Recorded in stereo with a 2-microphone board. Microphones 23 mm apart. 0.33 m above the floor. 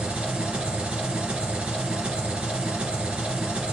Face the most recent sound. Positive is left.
turn(degrees=-75)  # may be behind; listen again after turning